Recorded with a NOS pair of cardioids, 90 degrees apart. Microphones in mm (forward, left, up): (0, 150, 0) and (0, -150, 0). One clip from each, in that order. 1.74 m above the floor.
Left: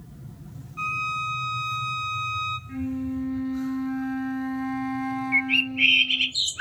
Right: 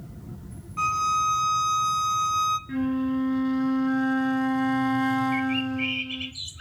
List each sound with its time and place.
0.8 s a violin: 45° right, 1.4 m
2.7 s a flute: 50° right, 1.8 m
5.3 s a bird: 60° left, 0.6 m